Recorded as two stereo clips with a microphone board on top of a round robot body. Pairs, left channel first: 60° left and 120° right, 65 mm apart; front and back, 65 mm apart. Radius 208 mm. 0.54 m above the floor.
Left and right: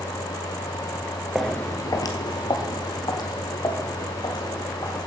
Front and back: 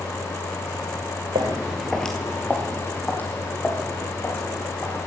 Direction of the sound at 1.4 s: 165° left.